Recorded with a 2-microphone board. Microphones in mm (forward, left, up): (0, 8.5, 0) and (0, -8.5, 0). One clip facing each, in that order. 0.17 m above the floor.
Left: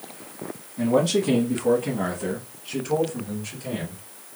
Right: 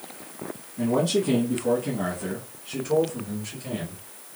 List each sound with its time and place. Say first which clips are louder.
0.8 s a man speaking: left 2 dB; 20° left (ahead or behind), 1.4 m; by 4.0 s 5° left (ahead or behind), 2.5 m